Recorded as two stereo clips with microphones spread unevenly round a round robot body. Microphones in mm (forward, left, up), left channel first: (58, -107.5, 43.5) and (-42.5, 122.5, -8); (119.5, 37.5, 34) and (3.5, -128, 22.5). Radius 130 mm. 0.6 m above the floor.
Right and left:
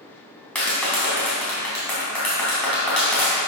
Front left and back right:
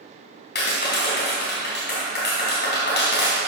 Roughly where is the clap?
Ahead.